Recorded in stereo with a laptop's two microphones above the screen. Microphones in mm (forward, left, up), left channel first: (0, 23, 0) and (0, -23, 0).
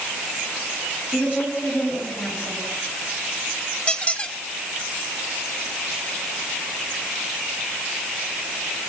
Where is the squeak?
30° left (ahead or behind), 1.8 m.